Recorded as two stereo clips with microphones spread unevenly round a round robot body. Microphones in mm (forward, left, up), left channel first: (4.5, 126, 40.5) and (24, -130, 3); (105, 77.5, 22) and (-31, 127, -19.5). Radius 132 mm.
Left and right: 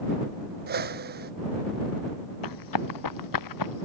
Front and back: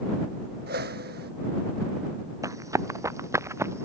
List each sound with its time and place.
0.7 s a whoosh: 145° right
2.4 s running footsteps: 90° left; by 3.9 s 85° left